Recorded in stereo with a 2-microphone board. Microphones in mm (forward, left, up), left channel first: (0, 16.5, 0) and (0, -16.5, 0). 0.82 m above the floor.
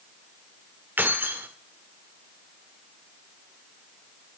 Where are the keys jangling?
80° right, 1.5 m.